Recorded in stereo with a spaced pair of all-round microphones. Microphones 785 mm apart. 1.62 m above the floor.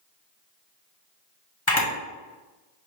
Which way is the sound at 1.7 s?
20° left (ahead or behind).